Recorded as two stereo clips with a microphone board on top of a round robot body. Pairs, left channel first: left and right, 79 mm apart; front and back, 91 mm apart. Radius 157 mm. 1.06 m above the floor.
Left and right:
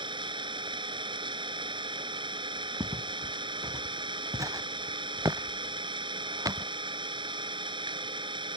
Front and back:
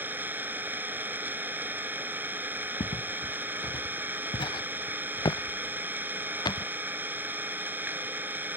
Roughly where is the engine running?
Right.